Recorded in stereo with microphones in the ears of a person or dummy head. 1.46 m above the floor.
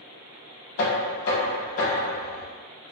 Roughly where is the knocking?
Left.